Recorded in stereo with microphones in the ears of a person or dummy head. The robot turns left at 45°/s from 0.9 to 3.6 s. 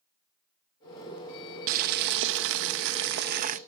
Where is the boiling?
45° right, 0.7 m; by 3.6 s 135° right, 0.7 m.